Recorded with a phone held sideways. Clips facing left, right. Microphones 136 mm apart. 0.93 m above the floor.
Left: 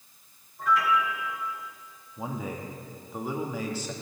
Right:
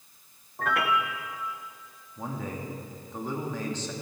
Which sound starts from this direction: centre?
A man speaking, at 2.2 s.